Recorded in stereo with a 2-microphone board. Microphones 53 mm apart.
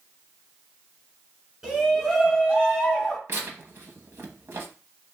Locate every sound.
1.6 s a shout: 15° right (ahead or behind), 3.5 m; by 3.2 s 5° right (ahead or behind), 1.7 m
3.3 s tearing paper: 50° right (ahead or behind), 1.1 m